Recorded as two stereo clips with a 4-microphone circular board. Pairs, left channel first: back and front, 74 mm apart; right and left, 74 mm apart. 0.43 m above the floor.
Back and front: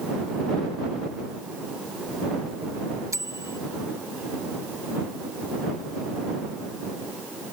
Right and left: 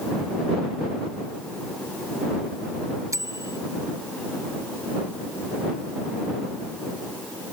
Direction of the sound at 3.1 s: 45° left.